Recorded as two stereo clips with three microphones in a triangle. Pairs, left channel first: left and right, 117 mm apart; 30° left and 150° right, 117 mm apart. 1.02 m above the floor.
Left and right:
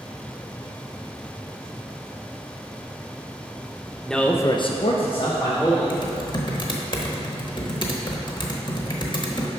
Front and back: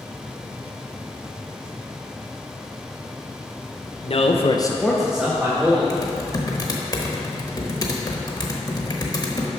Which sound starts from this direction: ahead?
A man speaking, at 4.0 s.